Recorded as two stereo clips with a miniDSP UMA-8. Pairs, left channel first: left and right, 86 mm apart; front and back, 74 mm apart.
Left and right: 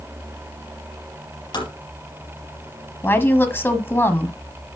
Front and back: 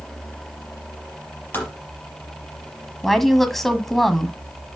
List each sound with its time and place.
1.5 s tapping: 65° left, 4.5 m
3.0 s a woman speaking: 80° left, 1.2 m